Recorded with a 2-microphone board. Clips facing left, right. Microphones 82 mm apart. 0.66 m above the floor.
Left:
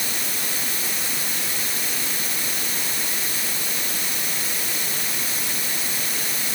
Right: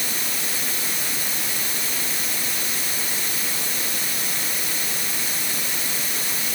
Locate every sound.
Only background noise.